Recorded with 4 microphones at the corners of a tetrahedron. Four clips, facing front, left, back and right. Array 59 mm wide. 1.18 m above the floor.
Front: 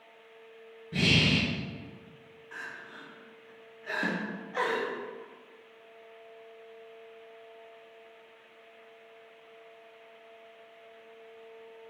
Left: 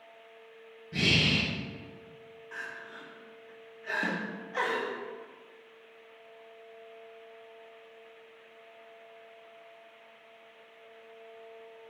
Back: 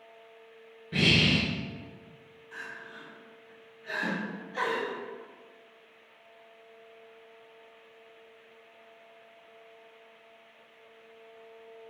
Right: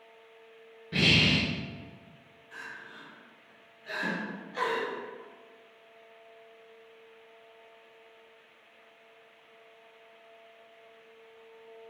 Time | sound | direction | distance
0.9 | breathing | 125° right | 0.7 m
2.5 | crying | 40° left | 1.0 m
4.0 | a snare drum | 40° left | 0.9 m